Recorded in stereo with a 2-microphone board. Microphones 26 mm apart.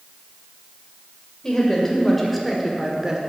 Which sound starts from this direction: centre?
A woman speaking, at 1.4 s.